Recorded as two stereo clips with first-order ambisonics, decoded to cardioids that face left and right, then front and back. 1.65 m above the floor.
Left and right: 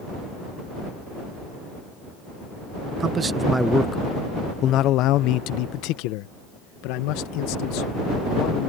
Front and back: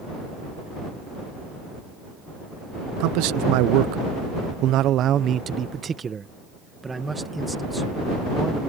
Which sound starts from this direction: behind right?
A man speaking, at 3.0 s.